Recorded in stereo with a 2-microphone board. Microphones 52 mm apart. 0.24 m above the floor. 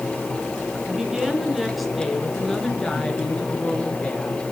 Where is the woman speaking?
10° right (ahead or behind), 3 m; by 4.4 s 20° left (ahead or behind), 4.5 m.